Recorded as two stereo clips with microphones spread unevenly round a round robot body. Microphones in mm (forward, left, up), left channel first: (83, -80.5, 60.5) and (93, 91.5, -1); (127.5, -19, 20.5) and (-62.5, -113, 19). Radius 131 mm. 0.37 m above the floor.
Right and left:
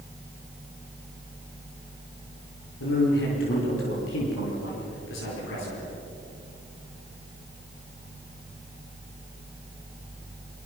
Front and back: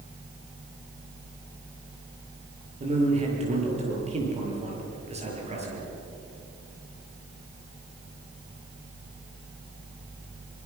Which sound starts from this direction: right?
A man speaking, at 2.8 s.